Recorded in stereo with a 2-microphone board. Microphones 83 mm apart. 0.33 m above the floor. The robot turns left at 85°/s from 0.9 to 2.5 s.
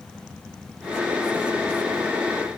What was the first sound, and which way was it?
Only background noise.